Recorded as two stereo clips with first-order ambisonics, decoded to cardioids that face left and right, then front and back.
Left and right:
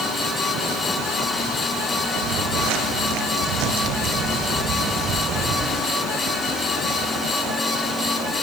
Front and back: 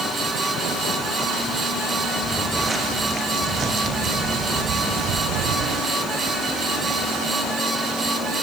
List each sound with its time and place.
2.2 s footsteps: 100° right, 4 m; by 5.8 s 150° right, 4 m